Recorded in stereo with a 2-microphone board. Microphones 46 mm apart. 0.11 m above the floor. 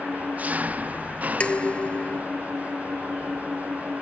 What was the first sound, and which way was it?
An engine running, 35° right (ahead or behind).